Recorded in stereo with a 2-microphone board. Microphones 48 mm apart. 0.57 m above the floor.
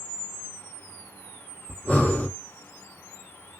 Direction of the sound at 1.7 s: 30° left (ahead or behind).